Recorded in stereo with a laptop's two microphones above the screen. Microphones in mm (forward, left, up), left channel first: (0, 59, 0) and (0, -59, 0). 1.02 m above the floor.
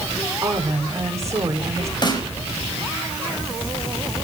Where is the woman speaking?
25° right (ahead or behind), 4 m.